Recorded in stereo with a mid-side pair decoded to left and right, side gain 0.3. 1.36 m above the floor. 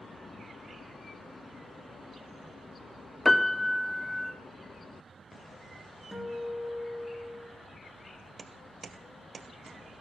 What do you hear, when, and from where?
3.2 s a piano: 25° left, 0.7 m
6.1 s a guitar: 5° right, 2.5 m